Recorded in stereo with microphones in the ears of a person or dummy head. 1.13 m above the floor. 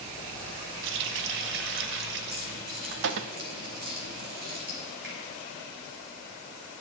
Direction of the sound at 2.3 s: 50° right (ahead or behind).